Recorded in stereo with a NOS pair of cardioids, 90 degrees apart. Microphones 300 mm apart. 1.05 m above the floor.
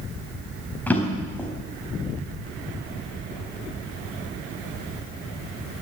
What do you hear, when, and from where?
0.9 s a drawer: 5° left, 4 m